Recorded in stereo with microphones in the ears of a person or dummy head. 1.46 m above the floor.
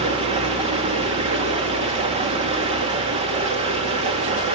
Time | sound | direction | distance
0.0 | running water | 35° right (ahead or behind) | 1.8 m